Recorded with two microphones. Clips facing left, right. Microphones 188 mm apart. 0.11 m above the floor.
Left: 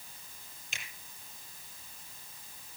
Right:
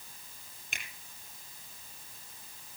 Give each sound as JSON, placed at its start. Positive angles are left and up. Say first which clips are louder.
{"t": 0.7, "sound": "a finger snap", "louder": "right 2 dB", "side_deg": -60, "distance_m": 3.0}